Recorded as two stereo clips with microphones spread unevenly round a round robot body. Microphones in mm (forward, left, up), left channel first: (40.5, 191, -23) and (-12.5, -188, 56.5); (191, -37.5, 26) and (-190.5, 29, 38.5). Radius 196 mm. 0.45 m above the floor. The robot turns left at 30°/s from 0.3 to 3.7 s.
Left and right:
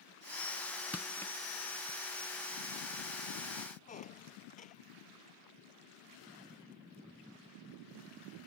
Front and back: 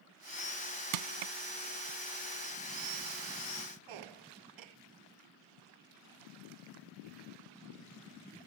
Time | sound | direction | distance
0.9 | crushing | straight behind | ?
3.9 | a squeak | 155° left | ?